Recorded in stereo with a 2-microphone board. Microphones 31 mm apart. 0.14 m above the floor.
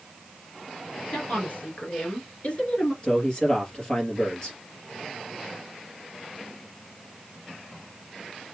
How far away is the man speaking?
About 2.5 m.